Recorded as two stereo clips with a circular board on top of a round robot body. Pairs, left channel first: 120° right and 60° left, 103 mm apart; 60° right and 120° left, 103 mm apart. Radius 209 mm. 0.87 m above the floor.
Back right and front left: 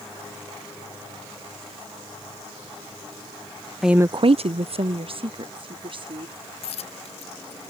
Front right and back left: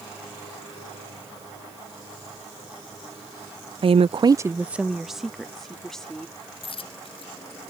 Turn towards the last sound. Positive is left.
turn(degrees=-95)